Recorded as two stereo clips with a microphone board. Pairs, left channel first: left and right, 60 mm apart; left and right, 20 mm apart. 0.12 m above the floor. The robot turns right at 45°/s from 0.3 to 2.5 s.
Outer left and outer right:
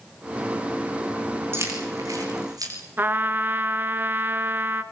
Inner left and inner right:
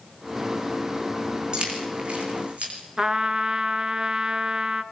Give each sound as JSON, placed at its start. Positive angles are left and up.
{"t": 1.5, "sound": "keys jangling", "side_deg": -40, "distance_m": 5.5}
{"t": 3.0, "sound": "a trumpet", "side_deg": -30, "distance_m": 1.2}